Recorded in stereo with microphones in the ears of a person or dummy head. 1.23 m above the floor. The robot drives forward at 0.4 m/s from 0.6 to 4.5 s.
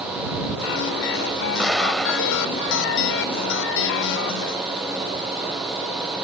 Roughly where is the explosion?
Centre.